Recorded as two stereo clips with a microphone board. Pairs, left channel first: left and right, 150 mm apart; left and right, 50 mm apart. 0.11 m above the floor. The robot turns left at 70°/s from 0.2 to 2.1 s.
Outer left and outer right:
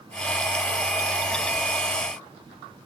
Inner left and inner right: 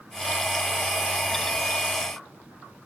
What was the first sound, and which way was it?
Only background noise.